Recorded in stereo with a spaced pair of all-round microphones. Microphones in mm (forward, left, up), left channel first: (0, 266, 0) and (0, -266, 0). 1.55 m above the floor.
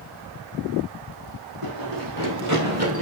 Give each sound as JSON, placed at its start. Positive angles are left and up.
{"t": 1.6, "sound": "running footsteps", "side_deg": -40, "distance_m": 4.0}